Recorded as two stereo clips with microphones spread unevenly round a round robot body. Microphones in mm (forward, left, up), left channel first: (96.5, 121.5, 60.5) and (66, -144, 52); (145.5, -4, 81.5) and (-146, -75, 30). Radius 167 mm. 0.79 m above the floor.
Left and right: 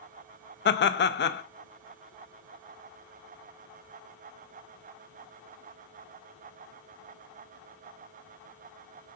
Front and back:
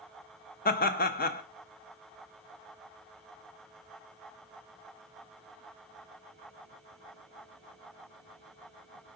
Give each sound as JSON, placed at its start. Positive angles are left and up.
{"t": 0.7, "sound": "laughter", "azimuth_deg": 70, "distance_m": 0.7}